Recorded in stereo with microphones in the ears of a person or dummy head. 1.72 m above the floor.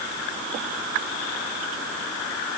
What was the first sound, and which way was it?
Only background noise.